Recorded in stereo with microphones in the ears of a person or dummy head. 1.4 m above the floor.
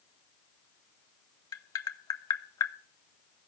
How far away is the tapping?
About 1.0 m.